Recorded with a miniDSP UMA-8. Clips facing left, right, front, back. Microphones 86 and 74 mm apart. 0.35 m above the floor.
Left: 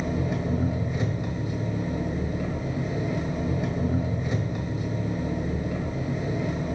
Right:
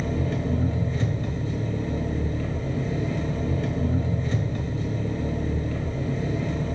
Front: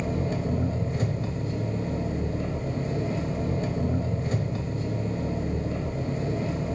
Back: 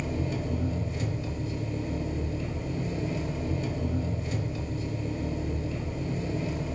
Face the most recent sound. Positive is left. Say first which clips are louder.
# even, front 3 dB
turn(degrees=20)